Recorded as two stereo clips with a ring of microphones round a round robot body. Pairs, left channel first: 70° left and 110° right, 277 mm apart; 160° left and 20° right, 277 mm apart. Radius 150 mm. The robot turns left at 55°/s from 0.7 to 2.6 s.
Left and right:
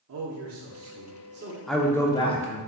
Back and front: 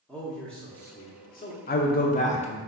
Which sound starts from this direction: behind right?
A man speaking, at 0.1 s.